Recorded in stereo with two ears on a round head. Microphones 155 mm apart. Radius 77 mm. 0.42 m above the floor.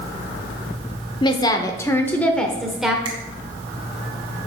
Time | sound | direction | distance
1.2 | a woman speaking | 30° left (ahead or behind) | 0.9 m
3.0 | a finger snap | 30° right (ahead or behind) | 2.5 m